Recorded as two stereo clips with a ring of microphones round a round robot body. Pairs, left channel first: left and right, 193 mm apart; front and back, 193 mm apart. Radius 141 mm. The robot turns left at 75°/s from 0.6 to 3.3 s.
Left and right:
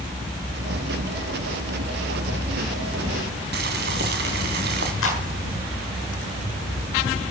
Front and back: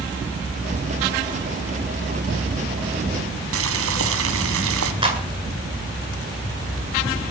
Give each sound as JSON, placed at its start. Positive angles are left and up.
{"t": 3.5, "sound": "boiling", "azimuth_deg": -145, "distance_m": 1.7}
{"t": 5.0, "sound": "a clap", "azimuth_deg": 115, "distance_m": 8.5}